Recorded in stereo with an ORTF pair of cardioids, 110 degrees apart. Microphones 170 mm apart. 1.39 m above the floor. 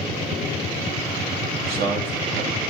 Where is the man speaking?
60° right, 2.5 m.